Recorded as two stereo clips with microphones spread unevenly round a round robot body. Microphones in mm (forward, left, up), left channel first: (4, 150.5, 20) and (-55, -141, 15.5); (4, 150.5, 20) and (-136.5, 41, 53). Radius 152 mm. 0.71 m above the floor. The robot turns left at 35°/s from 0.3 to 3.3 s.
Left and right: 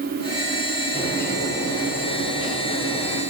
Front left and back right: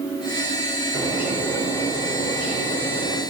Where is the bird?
145° left, 4 m; by 3.2 s 65° left, 4 m.